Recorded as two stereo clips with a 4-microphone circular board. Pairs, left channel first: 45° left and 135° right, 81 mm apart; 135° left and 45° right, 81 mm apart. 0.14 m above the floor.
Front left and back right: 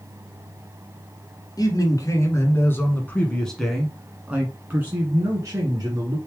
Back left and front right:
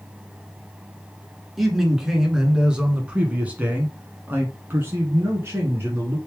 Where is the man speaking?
40° left, 1.7 m; by 6.2 s 100° right, 1.9 m.